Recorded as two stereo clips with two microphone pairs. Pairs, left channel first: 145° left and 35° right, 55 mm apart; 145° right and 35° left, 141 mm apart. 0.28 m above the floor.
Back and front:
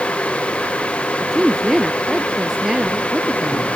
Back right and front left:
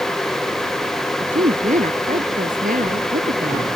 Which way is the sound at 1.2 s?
55° left.